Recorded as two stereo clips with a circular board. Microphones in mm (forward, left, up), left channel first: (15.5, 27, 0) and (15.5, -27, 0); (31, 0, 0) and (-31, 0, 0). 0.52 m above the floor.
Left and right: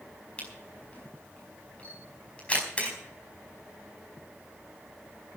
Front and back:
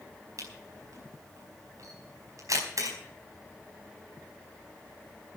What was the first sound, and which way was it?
A camera shutter, 155° left.